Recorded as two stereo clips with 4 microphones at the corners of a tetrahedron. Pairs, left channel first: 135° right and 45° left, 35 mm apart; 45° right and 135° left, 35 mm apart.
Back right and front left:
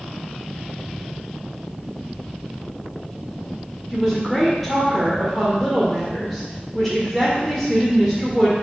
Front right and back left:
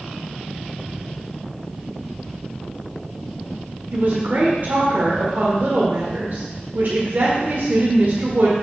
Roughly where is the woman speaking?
Behind left.